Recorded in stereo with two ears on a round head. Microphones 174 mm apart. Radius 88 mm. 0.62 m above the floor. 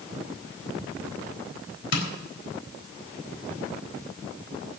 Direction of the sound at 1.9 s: 65° left (ahead or behind).